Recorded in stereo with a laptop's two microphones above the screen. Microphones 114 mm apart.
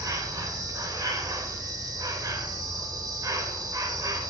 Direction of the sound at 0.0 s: 30° right (ahead or behind).